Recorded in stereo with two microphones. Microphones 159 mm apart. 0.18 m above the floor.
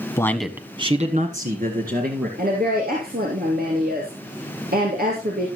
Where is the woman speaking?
65° right (ahead or behind), 3 m.